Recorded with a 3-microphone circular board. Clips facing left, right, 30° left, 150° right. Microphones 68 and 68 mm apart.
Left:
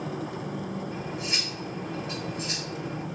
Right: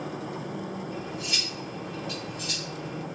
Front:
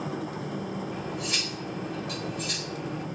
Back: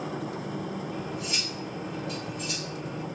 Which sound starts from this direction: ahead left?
Cutlery clinking, at 0.9 s.